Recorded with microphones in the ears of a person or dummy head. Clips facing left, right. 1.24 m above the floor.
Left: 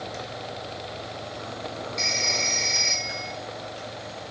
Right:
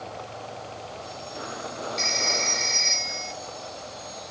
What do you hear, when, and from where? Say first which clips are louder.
2.0 s a phone ringing: right 2 dB; centre (ahead or behind), 2.5 m